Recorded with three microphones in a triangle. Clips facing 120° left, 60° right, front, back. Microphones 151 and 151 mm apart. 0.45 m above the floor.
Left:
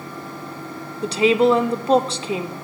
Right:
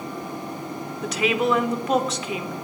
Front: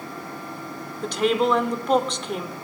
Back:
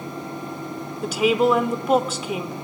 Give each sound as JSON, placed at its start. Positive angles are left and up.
{"t": 1.0, "sound": "a woman speaking", "azimuth_deg": 105, "distance_m": 0.8}